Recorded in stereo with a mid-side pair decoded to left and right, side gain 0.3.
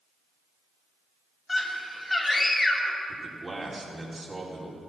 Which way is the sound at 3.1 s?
35° right.